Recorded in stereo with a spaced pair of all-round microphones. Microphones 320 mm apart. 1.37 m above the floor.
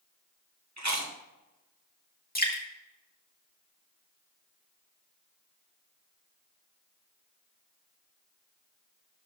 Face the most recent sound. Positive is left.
turn(degrees=25)  # may be behind; listen again after turning